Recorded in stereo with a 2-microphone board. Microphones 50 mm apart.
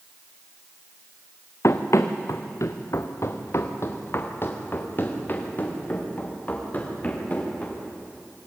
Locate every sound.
1.6 s running footsteps: 65° left (ahead or behind), 1.6 m; by 7.8 s 30° left (ahead or behind), 6 m